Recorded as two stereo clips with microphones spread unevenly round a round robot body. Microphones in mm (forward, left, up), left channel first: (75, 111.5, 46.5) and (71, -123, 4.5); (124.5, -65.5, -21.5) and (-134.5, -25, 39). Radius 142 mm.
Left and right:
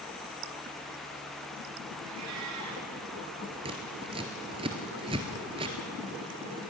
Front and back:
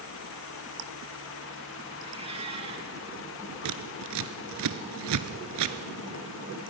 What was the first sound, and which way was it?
A cat meowing, 120° right.